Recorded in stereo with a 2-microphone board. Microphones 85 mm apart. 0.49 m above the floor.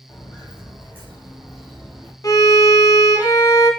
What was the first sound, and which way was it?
Footsteps, 30° left (ahead or behind).